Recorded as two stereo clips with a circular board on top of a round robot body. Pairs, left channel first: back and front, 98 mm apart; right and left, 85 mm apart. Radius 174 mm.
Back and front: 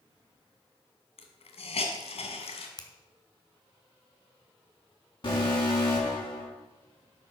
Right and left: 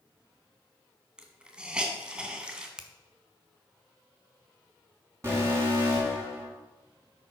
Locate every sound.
1.2 s a hiss: 170° left, 1.5 m
2.8 s a finger snap: 170° left, 1.3 m
5.2 s an alarm: 145° left, 6 m